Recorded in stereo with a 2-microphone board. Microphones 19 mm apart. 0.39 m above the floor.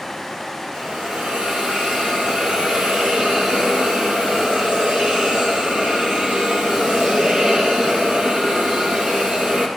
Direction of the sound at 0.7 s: 70° right (ahead or behind).